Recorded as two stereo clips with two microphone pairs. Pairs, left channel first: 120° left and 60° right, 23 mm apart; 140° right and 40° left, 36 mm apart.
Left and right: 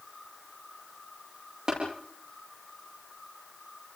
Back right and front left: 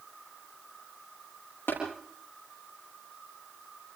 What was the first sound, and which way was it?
Tapping, 115° right.